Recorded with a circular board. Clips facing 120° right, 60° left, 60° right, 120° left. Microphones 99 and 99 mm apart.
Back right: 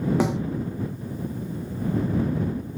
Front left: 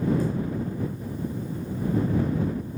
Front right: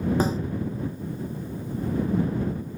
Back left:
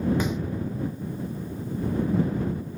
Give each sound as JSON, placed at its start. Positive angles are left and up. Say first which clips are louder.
{"t": 0.2, "sound": "a snare drum", "louder": "back right 4 dB, front right 3 dB", "azimuth_deg": -115}